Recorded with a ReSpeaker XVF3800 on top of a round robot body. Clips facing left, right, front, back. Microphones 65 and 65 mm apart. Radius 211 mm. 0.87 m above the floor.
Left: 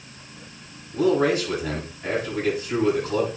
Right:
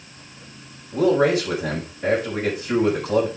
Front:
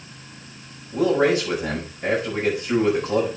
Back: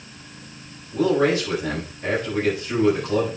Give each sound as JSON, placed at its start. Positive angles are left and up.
{"t": 0.9, "sound": "a man speaking", "azimuth_deg": -70, "distance_m": 5.5}